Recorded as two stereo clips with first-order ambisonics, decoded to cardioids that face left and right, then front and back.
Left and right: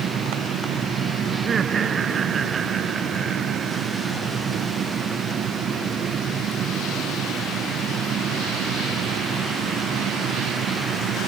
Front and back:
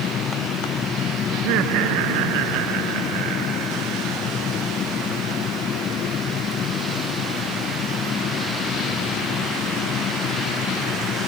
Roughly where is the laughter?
Behind.